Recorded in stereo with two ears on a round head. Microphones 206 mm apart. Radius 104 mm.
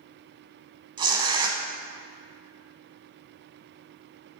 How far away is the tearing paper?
About 0.9 m.